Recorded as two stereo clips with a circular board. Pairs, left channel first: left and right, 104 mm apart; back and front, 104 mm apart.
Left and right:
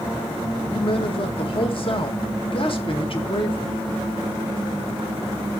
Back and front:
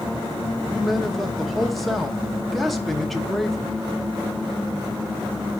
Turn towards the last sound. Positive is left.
turn(degrees=90)